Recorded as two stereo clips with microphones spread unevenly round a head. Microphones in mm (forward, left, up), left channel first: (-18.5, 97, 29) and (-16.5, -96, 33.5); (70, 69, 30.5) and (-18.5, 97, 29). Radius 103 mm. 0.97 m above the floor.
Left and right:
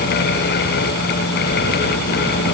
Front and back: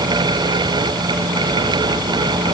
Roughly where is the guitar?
No guitar in this recording.